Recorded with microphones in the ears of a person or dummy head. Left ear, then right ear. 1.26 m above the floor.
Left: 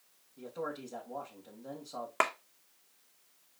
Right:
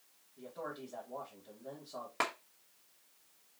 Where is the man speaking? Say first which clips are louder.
Left 4 dB; 70° left (ahead or behind), 1.7 m.